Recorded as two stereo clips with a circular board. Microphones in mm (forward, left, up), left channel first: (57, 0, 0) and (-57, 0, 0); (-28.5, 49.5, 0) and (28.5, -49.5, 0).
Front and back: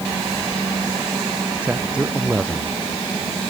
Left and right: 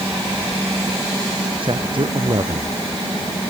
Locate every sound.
1.6 s a man speaking: 100° right